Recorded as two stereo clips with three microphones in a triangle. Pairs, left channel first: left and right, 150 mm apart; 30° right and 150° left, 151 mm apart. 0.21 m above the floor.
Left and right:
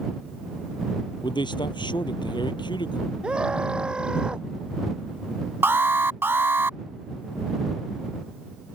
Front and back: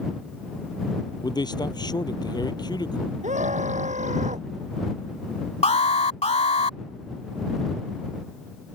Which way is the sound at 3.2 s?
175° right.